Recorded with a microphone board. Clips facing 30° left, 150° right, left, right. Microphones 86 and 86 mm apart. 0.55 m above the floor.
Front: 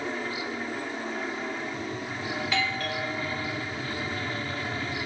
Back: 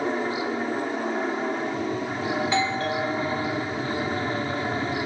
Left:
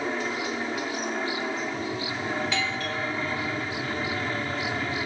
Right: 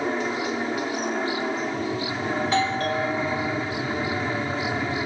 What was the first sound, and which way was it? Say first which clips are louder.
An aircraft: back 6 dB, right 3 dB; 150° right.